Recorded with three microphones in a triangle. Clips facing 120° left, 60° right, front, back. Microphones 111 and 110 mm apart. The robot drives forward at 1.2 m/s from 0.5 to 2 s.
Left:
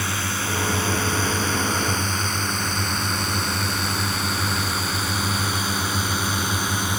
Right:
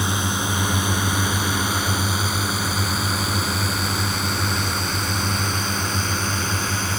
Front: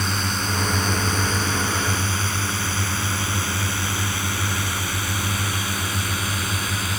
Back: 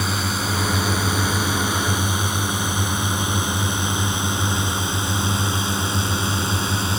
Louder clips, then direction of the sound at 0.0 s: Right 3 dB, back 2 dB; 100° right.